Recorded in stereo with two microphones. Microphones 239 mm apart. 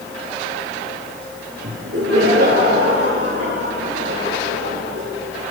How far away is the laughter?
About 8 m.